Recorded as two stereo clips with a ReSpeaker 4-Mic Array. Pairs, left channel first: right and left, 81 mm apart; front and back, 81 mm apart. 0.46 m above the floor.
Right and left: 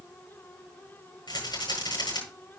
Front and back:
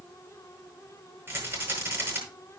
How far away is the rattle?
About 9 m.